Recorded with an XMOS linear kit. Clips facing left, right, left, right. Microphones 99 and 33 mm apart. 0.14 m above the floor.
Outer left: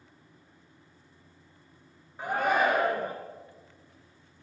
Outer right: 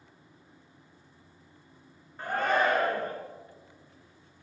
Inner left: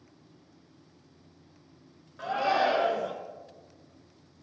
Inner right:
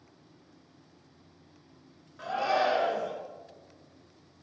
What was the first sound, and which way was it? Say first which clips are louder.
A shout: outer left 1 dB, inner left 1 dB; 10° left (ahead or behind).